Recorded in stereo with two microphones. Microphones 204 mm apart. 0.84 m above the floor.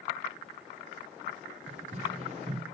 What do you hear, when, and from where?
1.7 s running footsteps: 35° right (ahead or behind), 0.9 m